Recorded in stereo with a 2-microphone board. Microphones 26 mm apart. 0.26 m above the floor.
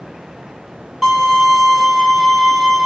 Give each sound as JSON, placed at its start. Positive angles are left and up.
{"t": 1.0, "sound": "a violin", "side_deg": -5, "distance_m": 1.4}